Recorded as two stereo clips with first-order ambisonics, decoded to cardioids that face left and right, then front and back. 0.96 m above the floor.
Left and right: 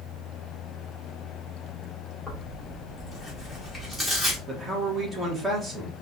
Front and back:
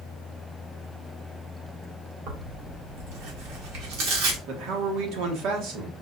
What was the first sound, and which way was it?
Tearing paper, 170° right.